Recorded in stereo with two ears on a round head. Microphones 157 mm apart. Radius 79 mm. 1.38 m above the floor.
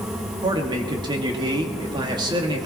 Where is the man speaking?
25° right (ahead or behind), 2 m.